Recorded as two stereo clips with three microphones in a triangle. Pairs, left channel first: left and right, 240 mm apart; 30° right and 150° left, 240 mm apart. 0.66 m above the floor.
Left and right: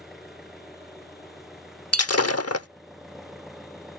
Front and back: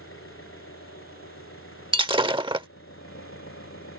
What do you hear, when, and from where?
0.0 s an engine running: straight ahead
1.9 s breaking glass: 80° left